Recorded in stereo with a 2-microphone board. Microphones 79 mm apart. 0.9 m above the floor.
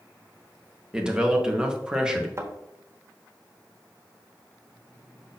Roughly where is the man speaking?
Centre.